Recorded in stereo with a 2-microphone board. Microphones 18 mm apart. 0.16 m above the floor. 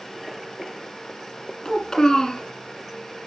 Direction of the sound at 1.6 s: 40° left (ahead or behind).